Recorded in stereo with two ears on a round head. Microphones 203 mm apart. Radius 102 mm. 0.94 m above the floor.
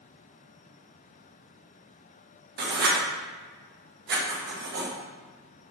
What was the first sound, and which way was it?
Writing, 50° right (ahead or behind).